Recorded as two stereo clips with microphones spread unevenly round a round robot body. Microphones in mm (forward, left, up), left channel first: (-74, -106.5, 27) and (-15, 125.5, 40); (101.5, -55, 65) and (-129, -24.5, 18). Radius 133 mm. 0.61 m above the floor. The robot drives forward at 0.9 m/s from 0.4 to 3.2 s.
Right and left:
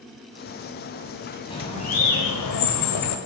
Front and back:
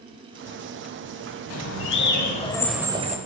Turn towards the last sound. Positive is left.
turn(degrees=-125)